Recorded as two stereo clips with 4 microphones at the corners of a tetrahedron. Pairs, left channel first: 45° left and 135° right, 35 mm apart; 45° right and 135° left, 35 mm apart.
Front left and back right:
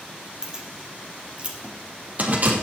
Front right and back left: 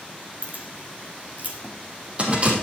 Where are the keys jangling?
155° left, 2.5 m; by 2.6 s 170° right, 3 m.